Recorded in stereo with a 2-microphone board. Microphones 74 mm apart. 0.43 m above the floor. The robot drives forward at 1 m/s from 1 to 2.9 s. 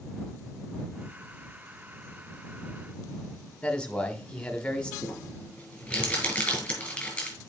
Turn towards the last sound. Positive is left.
turn(degrees=15)  # may be behind; listen again after turning